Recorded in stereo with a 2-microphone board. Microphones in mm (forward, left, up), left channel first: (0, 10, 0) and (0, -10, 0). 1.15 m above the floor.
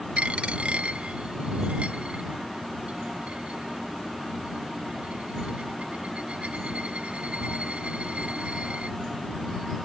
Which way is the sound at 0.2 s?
75° right (ahead or behind).